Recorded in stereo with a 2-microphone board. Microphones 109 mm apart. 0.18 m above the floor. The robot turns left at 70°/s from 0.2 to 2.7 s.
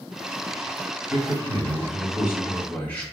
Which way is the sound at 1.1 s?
85° right.